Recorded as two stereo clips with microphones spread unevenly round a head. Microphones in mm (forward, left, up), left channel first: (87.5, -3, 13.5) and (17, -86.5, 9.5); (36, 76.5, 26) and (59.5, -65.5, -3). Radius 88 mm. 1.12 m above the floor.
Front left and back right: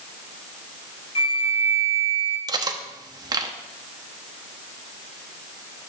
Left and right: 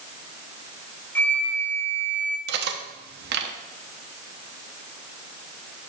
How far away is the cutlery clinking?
About 1.0 m.